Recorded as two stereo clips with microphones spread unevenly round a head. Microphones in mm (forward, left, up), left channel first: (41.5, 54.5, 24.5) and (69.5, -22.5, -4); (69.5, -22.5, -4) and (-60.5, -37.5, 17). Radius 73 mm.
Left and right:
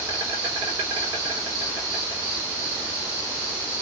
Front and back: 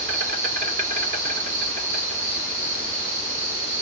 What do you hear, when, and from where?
0.0 s an insect: 145° right, 3 m